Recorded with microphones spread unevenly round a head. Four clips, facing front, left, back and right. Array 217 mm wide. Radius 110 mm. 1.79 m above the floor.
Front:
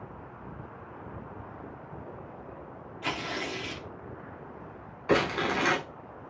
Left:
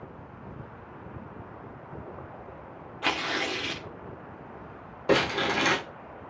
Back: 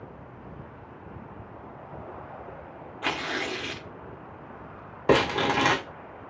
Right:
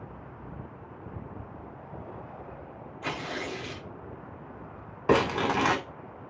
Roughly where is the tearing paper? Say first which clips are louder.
Left 4 dB, back 3 dB; behind left.